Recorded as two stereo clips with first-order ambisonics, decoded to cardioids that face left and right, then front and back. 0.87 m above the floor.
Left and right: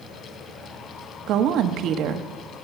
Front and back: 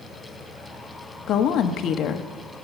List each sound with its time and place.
1.3 s a woman speaking: 50° right, 1.1 m